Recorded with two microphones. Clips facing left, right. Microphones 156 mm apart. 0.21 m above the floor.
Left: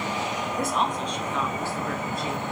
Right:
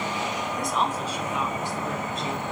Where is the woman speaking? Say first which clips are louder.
Left 1 dB; 5° left (ahead or behind), 1.4 m; by 2.4 s 25° right (ahead or behind), 2.5 m.